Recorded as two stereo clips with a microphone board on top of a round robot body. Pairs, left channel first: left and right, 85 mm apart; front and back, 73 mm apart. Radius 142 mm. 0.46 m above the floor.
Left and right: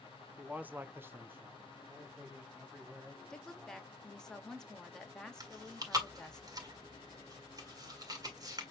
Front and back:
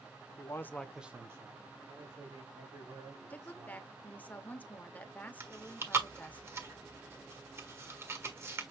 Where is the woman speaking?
20° left, 1.3 m.